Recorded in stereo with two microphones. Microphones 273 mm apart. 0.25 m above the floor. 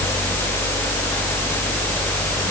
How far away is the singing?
I don't hear singing.